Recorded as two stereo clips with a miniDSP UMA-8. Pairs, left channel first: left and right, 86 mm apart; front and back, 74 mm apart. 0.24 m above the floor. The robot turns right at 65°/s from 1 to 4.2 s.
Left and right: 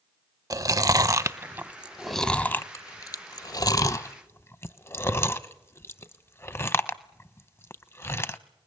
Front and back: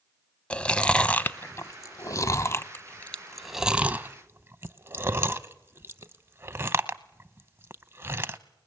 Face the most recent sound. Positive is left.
turn(degrees=140)